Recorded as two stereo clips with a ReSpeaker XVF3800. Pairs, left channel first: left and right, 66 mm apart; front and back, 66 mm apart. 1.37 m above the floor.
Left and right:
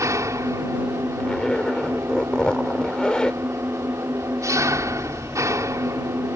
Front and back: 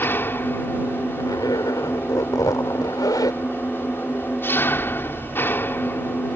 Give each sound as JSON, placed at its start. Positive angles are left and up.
{"t": 0.0, "sound": "an engine running", "azimuth_deg": -55}
{"t": 1.2, "sound": "a zipper", "azimuth_deg": 15}